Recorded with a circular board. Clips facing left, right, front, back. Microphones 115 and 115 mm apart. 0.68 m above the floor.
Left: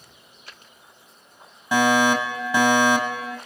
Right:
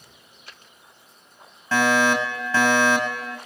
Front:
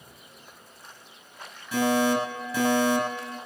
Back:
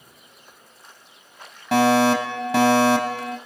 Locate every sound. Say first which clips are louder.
1.7 s a fire alarm: left 1 dB, back 6 dB; 165° left, 6 m